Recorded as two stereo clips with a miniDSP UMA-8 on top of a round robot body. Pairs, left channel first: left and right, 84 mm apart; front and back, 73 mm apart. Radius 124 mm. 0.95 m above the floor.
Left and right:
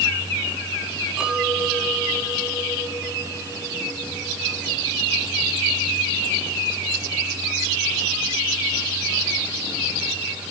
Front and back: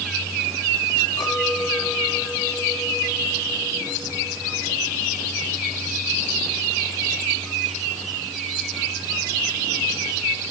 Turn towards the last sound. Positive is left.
turn(degrees=-10)